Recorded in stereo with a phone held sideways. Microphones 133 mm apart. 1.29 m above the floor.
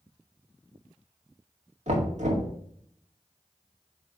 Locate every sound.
1.9 s knocking: 60° right (ahead or behind), 1.8 m